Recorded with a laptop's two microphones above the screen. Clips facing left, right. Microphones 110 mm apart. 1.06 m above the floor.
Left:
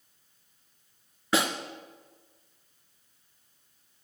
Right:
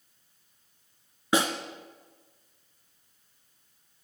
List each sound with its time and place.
1.3 s a snare drum: 20° right (ahead or behind), 2.5 m